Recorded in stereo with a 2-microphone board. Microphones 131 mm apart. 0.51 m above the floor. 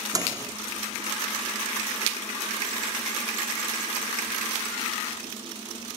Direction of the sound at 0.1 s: 30° right (ahead or behind).